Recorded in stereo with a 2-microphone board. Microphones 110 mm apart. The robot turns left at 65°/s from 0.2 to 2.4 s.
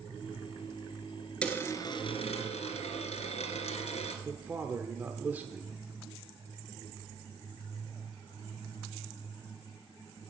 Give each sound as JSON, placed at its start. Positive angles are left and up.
{"t": 1.4, "sound": "a dropped coin", "azimuth_deg": 170, "distance_m": 2.0}
{"t": 4.2, "sound": "a man speaking", "side_deg": -15, "distance_m": 1.0}